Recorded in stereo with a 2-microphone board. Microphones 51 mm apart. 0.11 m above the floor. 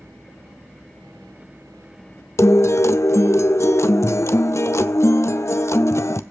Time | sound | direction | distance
2.4 | a guitar | 60° left (ahead or behind) | 0.5 m